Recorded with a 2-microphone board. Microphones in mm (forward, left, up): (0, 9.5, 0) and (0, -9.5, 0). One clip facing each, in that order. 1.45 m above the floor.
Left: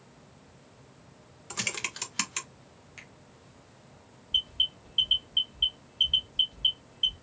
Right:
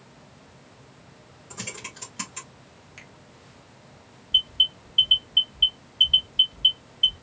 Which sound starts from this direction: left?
Typing on a keyboard, at 1.5 s.